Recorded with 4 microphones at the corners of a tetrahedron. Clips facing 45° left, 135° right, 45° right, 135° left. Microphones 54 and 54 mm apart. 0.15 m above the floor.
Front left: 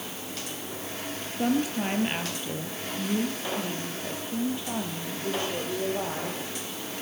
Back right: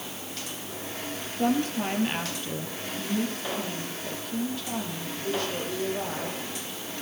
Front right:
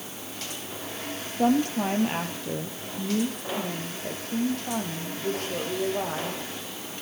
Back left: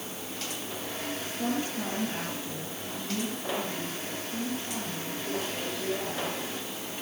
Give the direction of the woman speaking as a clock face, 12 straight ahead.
1 o'clock.